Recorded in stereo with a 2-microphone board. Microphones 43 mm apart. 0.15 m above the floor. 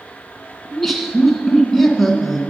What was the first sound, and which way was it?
Laughter, 5° left (ahead or behind).